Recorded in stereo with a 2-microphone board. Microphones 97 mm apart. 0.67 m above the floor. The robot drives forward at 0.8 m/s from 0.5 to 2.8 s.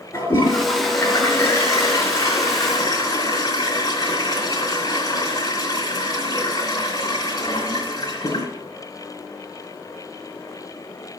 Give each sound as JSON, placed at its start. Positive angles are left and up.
{"t": 0.1, "sound": "a toilet flushing", "side_deg": 25, "distance_m": 4.0}